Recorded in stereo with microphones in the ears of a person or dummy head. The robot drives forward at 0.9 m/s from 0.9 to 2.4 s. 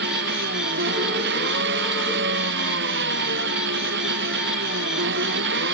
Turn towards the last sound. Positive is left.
turn(degrees=-70)  # may be behind; listen again after turning